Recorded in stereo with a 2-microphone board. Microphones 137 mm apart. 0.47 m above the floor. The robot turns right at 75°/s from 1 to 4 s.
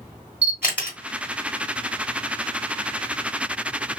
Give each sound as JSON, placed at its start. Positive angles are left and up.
{"t": 0.4, "sound": "a camera shutter", "side_deg": -15, "distance_m": 2.0}